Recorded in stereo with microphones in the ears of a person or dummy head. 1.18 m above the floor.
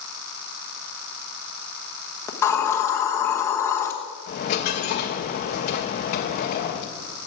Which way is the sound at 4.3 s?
30° left (ahead or behind).